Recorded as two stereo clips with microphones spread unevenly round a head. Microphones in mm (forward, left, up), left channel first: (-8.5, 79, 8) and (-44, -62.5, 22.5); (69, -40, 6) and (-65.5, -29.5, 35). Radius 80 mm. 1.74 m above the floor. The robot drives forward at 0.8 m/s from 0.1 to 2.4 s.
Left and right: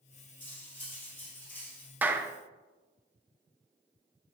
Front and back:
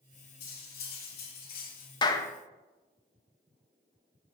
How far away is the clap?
About 0.7 m.